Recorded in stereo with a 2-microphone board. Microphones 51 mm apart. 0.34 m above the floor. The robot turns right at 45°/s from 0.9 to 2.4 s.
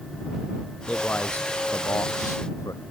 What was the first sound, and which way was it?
A man speaking, 20° left.